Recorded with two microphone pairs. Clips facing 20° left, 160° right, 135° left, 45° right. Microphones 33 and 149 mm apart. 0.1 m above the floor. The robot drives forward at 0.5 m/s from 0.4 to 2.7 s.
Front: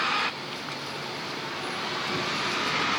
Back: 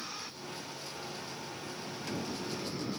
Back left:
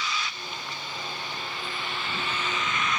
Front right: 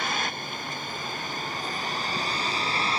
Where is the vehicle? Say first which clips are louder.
Front 16 dB, front right 3 dB; 10° right; by 3.0 s 10° left.